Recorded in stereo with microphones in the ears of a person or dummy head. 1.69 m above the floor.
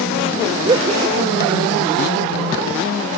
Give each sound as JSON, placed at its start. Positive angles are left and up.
{"t": 0.6, "sound": "laughter", "side_deg": -25}